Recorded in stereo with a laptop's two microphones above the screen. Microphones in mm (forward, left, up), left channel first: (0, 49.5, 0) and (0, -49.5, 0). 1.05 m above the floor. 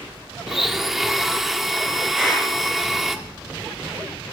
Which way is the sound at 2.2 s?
10° right (ahead or behind).